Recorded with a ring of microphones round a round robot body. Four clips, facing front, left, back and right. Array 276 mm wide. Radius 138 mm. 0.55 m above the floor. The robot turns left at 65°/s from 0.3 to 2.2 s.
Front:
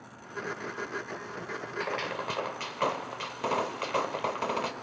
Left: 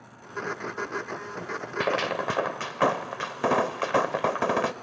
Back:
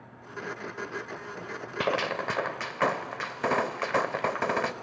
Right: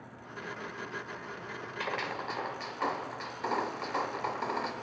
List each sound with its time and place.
1.8 s a gunshot: 130° left, 0.7 m; by 4.7 s 105° left, 0.7 m